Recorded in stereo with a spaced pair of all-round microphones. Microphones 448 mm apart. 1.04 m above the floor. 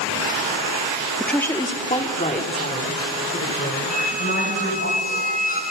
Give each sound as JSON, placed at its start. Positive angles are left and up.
{"t": 1.2, "sound": "a woman speaking", "side_deg": 0, "distance_m": 1.6}
{"t": 3.9, "sound": "a squeak", "side_deg": 20, "distance_m": 5.0}